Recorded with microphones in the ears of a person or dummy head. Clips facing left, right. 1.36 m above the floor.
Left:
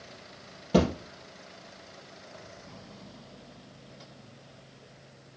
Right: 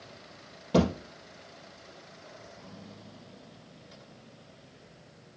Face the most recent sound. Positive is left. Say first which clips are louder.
# left 1 dB
turn(degrees=0)  # may be behind; listen again after turning